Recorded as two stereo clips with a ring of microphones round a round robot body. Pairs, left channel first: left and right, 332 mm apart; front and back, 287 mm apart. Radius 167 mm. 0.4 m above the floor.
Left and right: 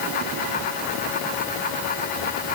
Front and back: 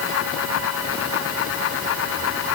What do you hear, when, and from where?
Only background noise.